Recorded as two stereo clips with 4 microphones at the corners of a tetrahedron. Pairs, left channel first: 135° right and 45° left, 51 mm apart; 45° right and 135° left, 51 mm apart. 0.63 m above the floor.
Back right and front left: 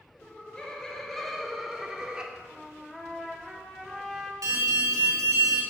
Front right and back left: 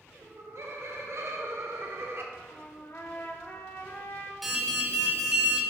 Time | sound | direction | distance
0.2 | laughter | 160° left | 1.9 m
2.3 | a trumpet | 50° right | 1.4 m
4.4 | an alarm | 50° left | 2.5 m